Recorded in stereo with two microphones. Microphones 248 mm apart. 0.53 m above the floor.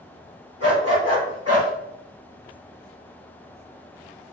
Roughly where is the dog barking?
Left.